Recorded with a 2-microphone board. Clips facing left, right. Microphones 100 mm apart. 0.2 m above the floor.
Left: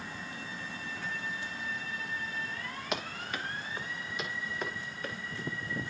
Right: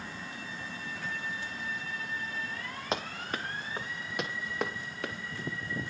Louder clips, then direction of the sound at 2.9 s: Right 3 dB; 30° right (ahead or behind).